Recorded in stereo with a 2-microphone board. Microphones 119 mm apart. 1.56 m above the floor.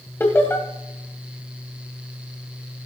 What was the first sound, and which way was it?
Laughter, 20° left (ahead or behind).